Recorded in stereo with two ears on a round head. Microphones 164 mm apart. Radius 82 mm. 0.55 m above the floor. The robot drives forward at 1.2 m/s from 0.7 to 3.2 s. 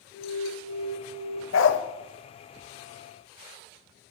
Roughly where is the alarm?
Centre.